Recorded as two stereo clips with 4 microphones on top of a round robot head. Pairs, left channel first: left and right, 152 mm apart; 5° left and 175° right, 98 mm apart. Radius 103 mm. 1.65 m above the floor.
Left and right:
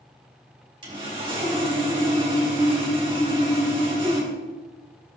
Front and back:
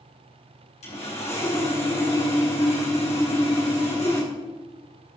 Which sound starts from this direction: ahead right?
Sawing, at 0.8 s.